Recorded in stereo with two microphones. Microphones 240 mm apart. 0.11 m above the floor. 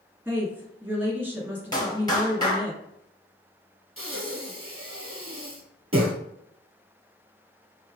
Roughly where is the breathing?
Right.